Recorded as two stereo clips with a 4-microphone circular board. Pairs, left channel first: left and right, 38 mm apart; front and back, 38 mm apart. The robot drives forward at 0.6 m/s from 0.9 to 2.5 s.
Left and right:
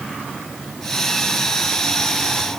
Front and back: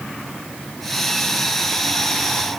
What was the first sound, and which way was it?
Only background noise.